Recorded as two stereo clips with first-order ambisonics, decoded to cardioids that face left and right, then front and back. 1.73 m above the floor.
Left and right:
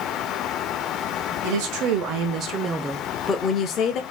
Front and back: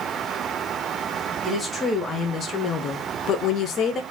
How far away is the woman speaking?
About 1.1 m.